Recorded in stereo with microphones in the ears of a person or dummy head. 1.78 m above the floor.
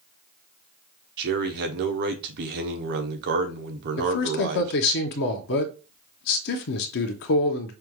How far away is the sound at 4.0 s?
About 0.9 m.